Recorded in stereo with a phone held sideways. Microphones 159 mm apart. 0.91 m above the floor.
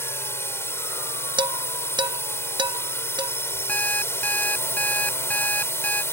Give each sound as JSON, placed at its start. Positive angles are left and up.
{"t": 0.0, "sound": "a drone", "side_deg": 15}
{"t": 1.4, "sound": "dishes clattering", "side_deg": -30}
{"t": 3.7, "sound": "an alarm clock", "side_deg": 10}